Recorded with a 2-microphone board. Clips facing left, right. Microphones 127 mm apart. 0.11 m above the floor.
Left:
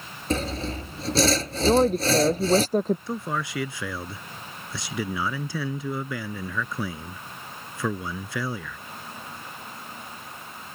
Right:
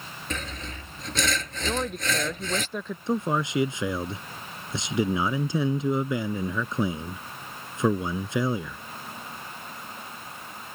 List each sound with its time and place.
0.3 s sawing: 35° left (ahead or behind)
1.7 s a woman speaking: 40° left (ahead or behind)
3.1 s a man speaking: 25° right (ahead or behind)